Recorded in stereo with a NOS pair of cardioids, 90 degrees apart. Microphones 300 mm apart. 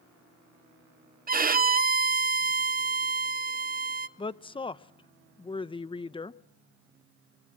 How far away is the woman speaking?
About 1.0 m.